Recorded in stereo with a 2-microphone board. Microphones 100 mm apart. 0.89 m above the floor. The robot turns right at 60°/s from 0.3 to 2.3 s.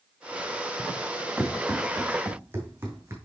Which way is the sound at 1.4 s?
40° left (ahead or behind).